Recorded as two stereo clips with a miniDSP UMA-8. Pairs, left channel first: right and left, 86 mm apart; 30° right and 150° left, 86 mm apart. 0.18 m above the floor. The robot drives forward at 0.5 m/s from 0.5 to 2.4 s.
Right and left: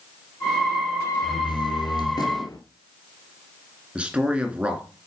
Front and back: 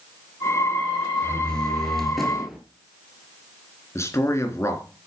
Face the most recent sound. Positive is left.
turn(degrees=20)